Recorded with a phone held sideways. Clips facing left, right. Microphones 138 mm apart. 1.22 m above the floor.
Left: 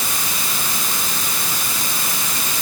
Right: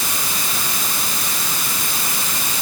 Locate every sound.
Only background noise.